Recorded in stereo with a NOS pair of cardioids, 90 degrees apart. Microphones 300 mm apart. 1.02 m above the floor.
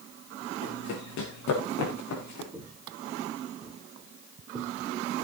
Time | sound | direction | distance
0.6 | running footsteps | 70° left | 5 m
2.5 | footsteps | 5° right | 4.5 m